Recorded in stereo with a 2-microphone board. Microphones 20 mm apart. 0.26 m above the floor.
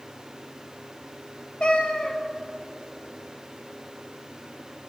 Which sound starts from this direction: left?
A cat meowing, at 1.6 s.